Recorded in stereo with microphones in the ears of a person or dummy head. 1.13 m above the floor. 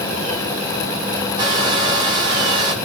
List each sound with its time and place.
1.4 s a hair dryer: 25° right (ahead or behind), 1.0 m